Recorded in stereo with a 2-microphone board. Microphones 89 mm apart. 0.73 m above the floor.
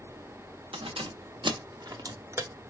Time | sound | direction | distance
0.7 | keys jangling | 85° right | 1.0 m